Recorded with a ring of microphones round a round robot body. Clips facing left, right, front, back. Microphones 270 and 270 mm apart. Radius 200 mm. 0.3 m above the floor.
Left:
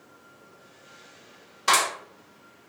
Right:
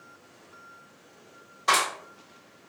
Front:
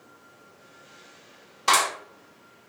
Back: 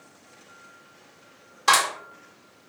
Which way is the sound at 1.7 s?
120° left.